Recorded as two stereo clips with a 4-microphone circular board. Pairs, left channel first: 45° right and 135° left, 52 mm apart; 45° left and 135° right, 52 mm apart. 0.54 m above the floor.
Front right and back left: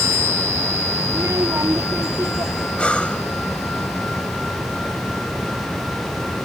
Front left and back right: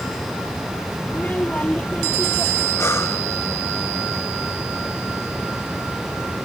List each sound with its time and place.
1.1 s a child speaking: 105° left; by 2.7 s 110° left
2.8 s breathing: 20° left